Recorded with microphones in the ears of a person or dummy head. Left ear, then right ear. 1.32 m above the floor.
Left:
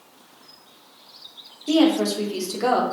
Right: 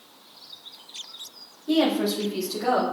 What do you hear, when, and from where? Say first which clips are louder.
1.7 s a woman speaking: left 3 dB; 85° left, 3 m; by 2.8 s 70° left (ahead or behind), 2.5 m